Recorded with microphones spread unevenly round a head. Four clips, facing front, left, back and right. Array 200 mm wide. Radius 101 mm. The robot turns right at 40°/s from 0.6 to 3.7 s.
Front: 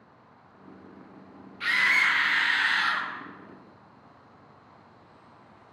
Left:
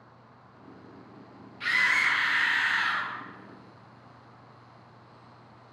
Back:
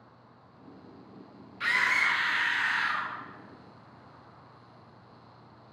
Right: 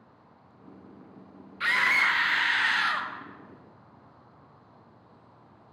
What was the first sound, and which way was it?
A scream, 115° right.